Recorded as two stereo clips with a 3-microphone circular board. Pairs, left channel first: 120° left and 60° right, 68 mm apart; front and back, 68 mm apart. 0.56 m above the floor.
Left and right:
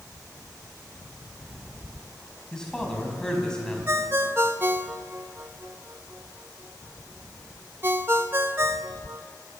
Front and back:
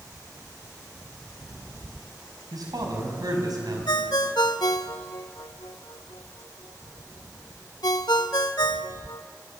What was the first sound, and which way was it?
A man speaking, 160° right.